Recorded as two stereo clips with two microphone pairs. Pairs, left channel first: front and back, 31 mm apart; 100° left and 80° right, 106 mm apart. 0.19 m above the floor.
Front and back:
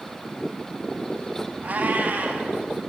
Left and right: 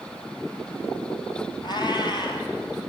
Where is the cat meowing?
145° left, 1.1 m.